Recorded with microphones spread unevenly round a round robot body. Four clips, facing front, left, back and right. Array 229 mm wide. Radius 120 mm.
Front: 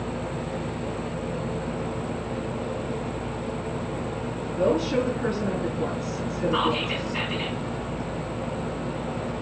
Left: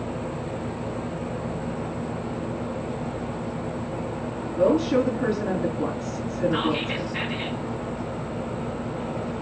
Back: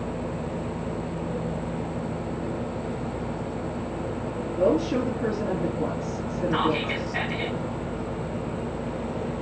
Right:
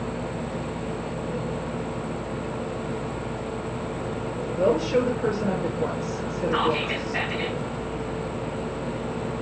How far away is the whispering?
About 2 m.